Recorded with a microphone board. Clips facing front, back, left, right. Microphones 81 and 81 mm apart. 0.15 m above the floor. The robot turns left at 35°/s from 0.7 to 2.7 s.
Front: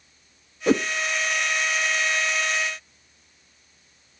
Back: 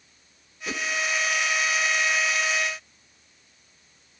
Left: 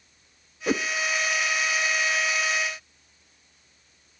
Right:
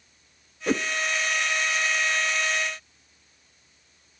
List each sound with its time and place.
0.7 s a whoosh: 5° left, 0.5 m; by 0.9 s straight ahead, 0.5 m